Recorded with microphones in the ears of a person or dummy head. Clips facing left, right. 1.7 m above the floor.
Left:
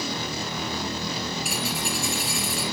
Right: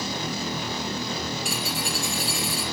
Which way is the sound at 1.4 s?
5° left (ahead or behind).